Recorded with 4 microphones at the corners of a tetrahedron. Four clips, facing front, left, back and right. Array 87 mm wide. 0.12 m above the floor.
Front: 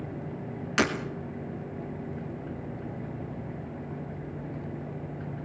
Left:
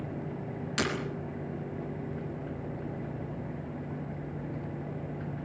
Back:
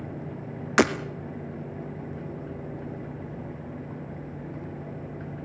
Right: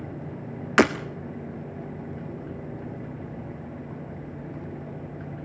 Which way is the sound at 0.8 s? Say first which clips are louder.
Right 13 dB, back 5 dB; 120° right.